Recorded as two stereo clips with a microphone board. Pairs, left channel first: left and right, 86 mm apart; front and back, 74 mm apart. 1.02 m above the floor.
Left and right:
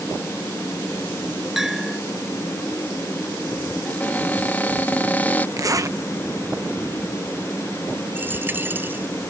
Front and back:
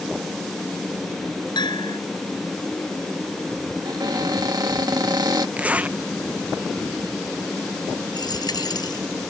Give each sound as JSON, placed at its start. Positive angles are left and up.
{"t": 1.6, "sound": "a bell", "azimuth_deg": -5}
{"t": 3.9, "sound": "a cupboard door", "azimuth_deg": 160}
{"t": 5.6, "sound": "a zipper", "azimuth_deg": -120}
{"t": 8.2, "sound": "a dropped coin", "azimuth_deg": -25}